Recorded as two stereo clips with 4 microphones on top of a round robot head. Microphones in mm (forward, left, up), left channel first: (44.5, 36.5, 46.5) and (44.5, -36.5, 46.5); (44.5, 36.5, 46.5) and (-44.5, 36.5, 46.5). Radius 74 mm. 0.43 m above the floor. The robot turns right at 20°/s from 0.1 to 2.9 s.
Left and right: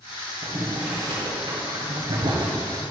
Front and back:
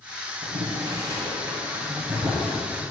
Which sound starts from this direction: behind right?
Boiling, at 0.4 s.